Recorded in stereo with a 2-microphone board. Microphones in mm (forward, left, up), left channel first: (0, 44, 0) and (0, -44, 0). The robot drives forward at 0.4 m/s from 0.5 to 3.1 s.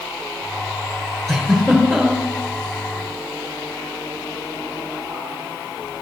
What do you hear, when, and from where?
1.3 s a giggle: 5° left (ahead or behind), 3 m